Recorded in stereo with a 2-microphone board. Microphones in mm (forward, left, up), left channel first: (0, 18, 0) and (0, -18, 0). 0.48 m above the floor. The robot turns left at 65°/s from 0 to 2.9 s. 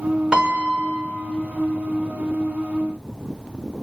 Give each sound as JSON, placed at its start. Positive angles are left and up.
{"t": 0.3, "sound": "a piano", "azimuth_deg": -45, "distance_m": 1.9}